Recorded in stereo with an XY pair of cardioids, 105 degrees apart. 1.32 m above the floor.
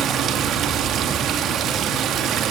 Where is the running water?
70° right, 2.0 m.